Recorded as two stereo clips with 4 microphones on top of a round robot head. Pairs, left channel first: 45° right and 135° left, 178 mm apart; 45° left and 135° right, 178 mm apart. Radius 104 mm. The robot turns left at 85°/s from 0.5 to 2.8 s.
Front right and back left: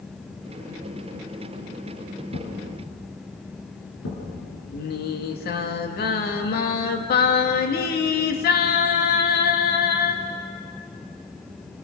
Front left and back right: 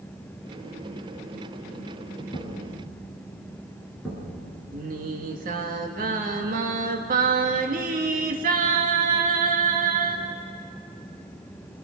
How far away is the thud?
About 7.5 m.